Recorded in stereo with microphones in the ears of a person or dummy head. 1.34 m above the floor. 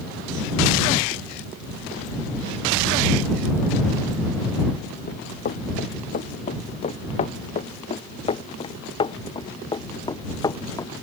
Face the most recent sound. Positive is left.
turn(degrees=15)  # may be behind; listen again after turning